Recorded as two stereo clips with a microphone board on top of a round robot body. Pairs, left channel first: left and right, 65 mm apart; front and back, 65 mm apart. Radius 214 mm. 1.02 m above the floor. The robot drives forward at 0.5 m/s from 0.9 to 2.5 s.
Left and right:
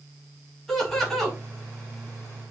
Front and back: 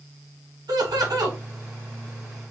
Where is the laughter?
175° left, 1.9 m.